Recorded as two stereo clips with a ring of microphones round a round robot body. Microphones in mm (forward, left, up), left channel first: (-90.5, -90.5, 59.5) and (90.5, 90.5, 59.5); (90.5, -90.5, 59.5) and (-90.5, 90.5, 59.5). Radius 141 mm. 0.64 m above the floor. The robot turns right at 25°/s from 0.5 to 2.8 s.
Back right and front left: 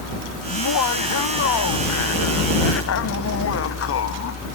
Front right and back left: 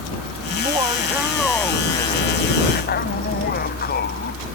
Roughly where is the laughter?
Behind right.